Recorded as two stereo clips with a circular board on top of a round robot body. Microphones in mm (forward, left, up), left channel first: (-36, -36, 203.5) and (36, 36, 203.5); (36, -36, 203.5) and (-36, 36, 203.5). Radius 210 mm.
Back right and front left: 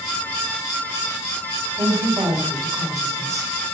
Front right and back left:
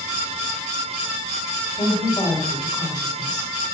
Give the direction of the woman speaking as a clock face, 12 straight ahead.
12 o'clock.